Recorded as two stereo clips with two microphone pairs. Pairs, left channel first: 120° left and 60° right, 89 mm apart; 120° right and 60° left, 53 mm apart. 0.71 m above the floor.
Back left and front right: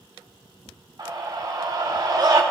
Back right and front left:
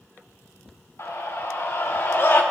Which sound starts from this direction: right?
A scream, at 1.0 s.